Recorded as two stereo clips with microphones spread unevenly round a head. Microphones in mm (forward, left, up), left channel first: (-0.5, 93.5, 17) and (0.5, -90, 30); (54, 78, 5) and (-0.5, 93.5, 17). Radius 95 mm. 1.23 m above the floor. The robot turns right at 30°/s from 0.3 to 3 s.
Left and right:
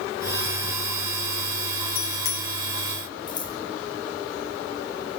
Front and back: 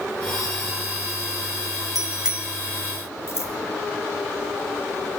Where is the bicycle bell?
75° left, 5 m; by 2.5 s 95° left, 5 m.